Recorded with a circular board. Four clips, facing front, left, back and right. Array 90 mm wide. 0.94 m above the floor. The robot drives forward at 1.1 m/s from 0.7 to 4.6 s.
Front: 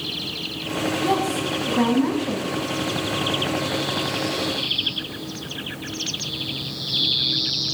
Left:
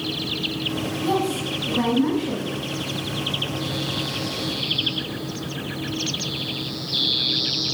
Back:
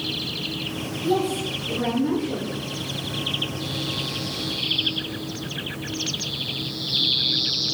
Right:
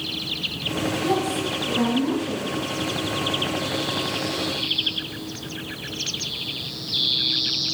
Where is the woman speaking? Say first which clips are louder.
Left 2 dB, back 2 dB; 10° left, 8 m; by 2.6 s 15° left, 6.5 m.